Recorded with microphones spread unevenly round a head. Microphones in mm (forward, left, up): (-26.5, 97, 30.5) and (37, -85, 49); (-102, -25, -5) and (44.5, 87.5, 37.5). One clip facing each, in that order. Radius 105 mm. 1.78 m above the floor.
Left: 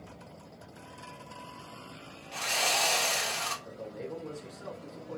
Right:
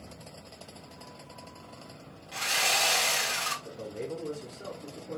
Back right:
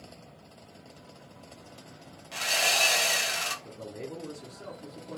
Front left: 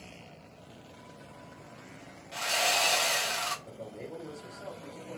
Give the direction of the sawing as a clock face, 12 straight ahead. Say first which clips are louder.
Left 1 dB, even; 5 o'clock.